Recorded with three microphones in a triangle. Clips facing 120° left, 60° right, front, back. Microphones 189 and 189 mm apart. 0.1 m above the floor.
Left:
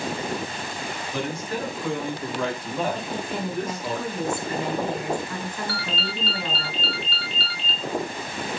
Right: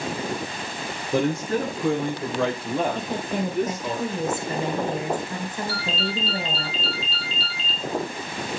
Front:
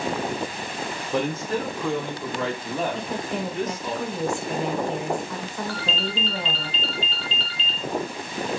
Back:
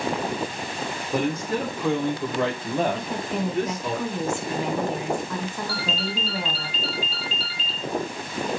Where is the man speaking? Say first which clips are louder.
Right 8 dB, back 1 dB; 100° right, 4 m; by 4.0 s 150° right, 3.5 m.